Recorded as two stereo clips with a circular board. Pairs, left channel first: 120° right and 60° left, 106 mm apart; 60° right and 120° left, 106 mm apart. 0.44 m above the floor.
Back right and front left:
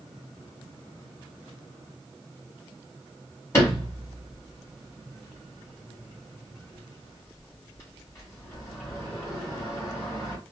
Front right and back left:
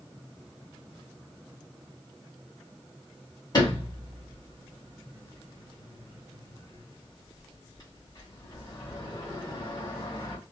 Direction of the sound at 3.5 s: 75° right.